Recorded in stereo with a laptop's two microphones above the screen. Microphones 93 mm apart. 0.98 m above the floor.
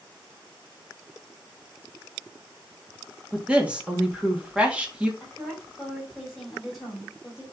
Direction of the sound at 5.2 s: Centre (ahead or behind).